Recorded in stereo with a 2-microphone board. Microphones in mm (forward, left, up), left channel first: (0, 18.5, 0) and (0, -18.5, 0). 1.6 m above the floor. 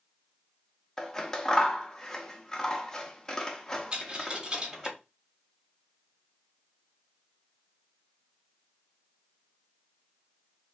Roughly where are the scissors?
Centre.